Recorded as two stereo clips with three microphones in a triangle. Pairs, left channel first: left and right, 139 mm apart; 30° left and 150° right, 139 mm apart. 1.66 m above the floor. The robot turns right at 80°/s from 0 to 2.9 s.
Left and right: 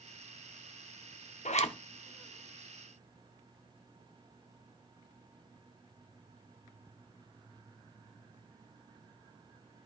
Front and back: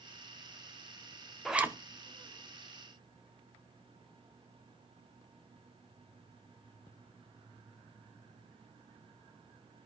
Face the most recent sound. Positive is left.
turn(degrees=-125)